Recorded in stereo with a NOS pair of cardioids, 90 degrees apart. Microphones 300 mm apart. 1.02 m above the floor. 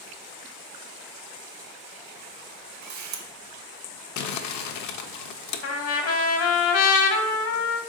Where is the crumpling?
65° left, 0.5 m.